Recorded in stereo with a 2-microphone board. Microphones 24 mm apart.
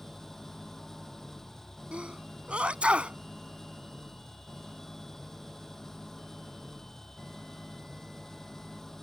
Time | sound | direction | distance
0.0 | an engine running | 15° left (ahead or behind) | ?
1.9 | a sneeze | 50° right (ahead or behind) | ?